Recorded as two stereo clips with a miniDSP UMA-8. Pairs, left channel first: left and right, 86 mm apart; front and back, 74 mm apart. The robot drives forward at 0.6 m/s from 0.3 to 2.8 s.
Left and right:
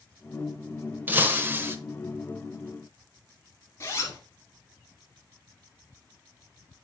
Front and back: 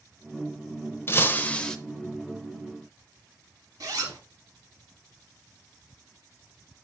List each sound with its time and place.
1.1 s breaking glass: 35° right, 0.9 m; by 1.8 s 75° right, 0.7 m
3.8 s a zipper: 145° left, 1.7 m